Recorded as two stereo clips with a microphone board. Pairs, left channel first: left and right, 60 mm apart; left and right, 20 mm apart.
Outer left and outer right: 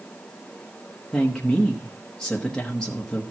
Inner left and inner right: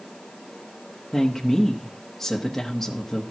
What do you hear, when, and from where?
1.1 s a woman speaking: 10° left (ahead or behind), 1.1 m